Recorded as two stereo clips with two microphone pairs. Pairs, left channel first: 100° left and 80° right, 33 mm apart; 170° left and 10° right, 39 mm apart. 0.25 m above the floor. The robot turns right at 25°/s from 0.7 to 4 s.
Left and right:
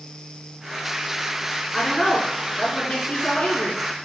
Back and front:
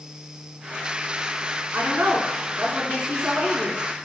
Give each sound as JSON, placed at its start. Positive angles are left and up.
{"t": 1.7, "sound": "a woman speaking", "azimuth_deg": 10, "distance_m": 3.0}